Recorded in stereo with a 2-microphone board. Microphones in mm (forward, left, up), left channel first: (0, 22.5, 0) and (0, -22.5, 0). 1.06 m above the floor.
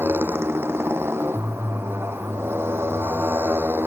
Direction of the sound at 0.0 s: 65° right (ahead or behind).